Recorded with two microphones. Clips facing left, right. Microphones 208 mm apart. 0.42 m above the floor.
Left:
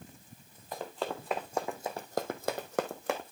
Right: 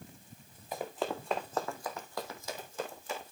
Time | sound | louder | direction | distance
0.7 | running footsteps | right 1 dB | 10° right (ahead or behind) | 2.5 m